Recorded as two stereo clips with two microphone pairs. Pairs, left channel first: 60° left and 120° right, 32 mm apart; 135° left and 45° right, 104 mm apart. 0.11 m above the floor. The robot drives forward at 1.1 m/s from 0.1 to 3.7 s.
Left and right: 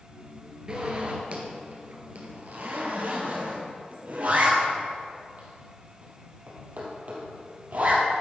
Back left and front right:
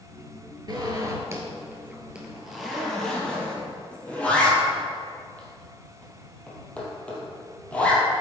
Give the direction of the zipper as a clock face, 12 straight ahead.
2 o'clock.